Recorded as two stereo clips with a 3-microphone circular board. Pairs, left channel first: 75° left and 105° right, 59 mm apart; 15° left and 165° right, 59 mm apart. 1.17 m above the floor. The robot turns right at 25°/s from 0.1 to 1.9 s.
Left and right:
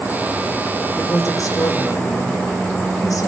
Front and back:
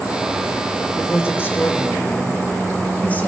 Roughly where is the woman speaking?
Ahead left.